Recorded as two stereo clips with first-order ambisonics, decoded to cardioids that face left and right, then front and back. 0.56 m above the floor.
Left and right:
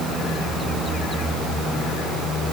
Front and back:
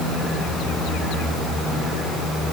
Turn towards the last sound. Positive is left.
No sound to turn to.